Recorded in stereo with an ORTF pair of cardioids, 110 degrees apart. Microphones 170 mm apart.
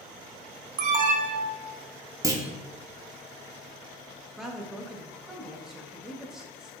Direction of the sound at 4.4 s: 5° right.